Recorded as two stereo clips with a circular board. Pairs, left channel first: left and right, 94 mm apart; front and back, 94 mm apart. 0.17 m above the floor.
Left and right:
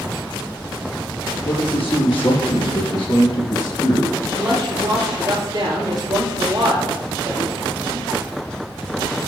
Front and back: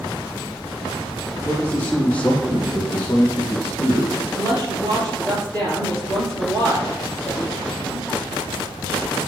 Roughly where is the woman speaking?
Right.